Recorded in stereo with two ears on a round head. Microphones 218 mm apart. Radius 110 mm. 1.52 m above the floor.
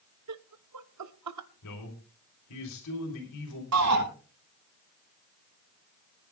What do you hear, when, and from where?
0.3 s laughter: 80° right, 1.2 m
1.6 s a man speaking: 85° left, 4 m
3.7 s a shout: 70° right (ahead or behind), 5.5 m